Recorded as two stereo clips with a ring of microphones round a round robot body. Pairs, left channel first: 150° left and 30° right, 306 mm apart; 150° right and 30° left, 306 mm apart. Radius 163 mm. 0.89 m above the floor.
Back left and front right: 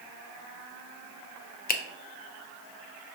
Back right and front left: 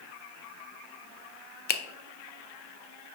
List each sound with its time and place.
1.7 s a finger snap: 175° right, 0.6 m